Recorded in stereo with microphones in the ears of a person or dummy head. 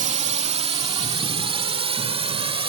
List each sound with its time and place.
0.0 s a drone: 40° right (ahead or behind); by 2.7 s 35° right (ahead or behind)